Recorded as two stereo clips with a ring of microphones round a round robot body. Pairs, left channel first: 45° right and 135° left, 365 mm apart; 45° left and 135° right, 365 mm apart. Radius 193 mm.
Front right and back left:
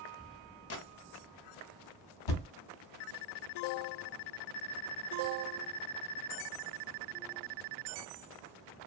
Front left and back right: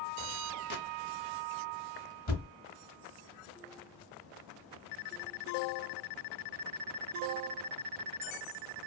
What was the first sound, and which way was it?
A gunshot, 10° right.